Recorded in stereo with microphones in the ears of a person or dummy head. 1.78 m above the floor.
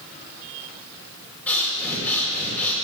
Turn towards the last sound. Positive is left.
turn(degrees=5)  # may be behind; listen again after turning